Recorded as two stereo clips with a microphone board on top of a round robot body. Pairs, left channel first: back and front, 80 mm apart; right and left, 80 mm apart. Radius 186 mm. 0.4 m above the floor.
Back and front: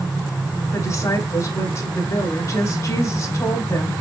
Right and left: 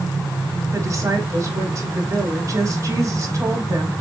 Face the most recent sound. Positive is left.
turn(degrees=135)